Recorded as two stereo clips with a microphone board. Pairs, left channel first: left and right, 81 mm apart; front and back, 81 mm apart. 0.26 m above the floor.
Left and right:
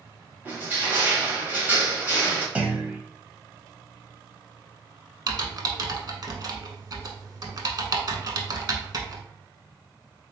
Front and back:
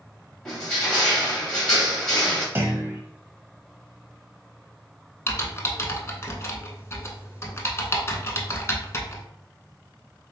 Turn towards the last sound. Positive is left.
turn(degrees=-55)